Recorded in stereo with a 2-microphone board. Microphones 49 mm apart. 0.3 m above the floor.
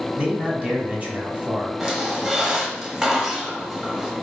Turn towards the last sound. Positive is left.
turn(degrees=-10)  # may be behind; listen again after turning